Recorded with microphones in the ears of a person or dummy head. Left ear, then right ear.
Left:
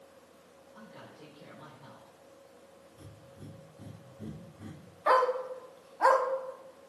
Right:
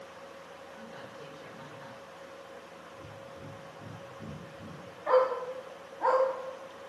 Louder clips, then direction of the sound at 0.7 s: Right 2 dB; 55° right (ahead or behind).